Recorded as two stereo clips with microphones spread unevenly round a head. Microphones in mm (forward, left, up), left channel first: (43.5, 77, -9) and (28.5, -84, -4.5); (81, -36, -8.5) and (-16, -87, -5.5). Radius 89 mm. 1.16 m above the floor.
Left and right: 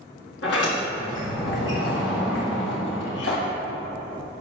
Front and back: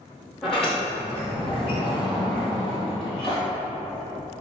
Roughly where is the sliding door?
Behind left.